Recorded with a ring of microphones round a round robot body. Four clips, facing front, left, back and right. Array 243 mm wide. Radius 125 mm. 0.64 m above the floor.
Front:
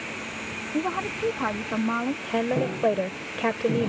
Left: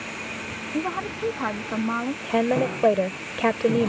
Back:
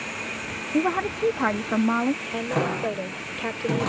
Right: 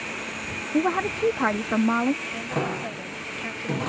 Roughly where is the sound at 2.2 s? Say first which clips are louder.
Left 7 dB, front 1 dB; left.